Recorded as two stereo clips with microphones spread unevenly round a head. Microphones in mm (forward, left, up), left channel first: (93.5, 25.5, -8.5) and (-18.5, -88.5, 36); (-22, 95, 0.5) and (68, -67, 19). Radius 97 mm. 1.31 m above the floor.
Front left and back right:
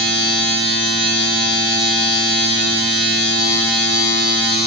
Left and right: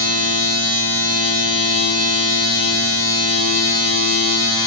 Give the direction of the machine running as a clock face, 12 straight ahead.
9 o'clock.